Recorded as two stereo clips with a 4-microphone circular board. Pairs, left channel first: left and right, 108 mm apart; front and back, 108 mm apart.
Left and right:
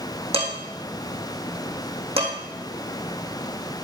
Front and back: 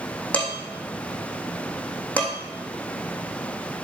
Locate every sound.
0.3 s dishes clattering: 75° right, 3.5 m